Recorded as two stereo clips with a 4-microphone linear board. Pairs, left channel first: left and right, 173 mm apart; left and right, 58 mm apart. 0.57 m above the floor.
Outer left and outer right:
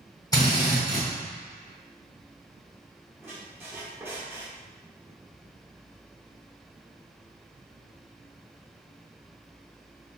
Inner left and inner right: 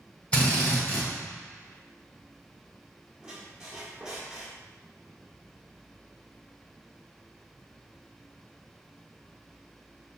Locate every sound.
0.3 s a drill: 20° left (ahead or behind), 1.7 m
3.2 s a squeak: 15° right (ahead or behind), 1.1 m